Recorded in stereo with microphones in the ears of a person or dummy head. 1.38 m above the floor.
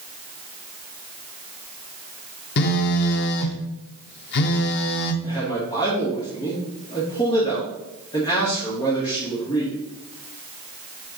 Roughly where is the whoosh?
No whoosh in this recording.